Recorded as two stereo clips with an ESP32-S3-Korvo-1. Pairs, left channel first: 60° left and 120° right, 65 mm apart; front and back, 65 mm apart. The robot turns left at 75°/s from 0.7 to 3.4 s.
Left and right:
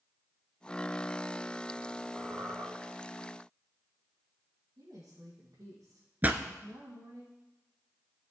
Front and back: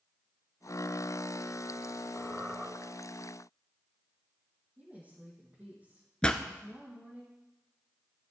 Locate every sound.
2.2 s a squeak: 65° right, 3.5 m; by 2.7 s 105° right, 3.5 m
4.8 s a woman speaking: 120° right, 4 m
6.2 s a pop: 70° right, 0.9 m